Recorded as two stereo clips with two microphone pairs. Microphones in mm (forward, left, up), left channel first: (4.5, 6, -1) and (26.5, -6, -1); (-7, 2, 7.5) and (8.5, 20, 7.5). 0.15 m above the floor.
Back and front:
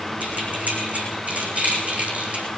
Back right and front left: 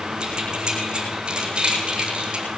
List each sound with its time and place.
0.2 s keys jangling: 5° right, 5.5 m; by 2.5 s 5° left, 4 m